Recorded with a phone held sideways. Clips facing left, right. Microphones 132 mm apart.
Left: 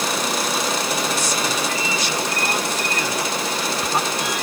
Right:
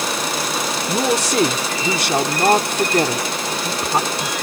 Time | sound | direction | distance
0.9 | a woman speaking | 80° right | ?